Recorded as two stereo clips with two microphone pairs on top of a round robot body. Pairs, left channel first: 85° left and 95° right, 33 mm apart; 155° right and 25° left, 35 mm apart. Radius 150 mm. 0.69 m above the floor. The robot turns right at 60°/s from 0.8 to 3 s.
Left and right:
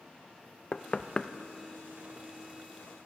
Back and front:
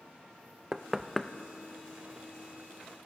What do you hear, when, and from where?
0.7 s knocking: 90° left, 0.6 m; by 1.3 s 120° left, 0.6 m